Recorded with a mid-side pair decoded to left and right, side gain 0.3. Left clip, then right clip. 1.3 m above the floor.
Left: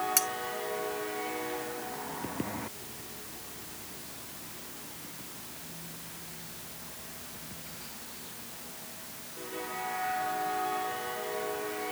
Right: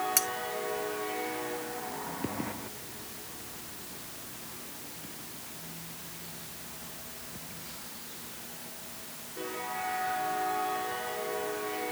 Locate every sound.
0.2 s cutlery clinking: 5° left